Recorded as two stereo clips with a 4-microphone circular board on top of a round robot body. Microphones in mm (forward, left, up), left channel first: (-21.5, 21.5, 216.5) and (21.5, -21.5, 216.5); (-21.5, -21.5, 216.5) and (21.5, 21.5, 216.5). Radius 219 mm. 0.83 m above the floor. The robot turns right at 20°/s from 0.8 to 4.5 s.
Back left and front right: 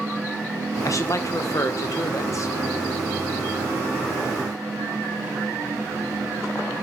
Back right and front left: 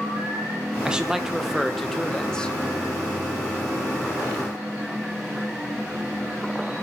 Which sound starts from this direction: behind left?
A man speaking, at 0.8 s.